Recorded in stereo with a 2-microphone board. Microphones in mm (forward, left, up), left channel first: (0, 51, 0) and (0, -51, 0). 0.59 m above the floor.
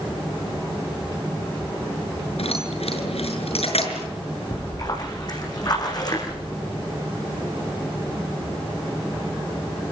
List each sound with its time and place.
2.4 s keys jangling: 85° left, 7 m
4.5 s a splash: 45° left (ahead or behind), 9.5 m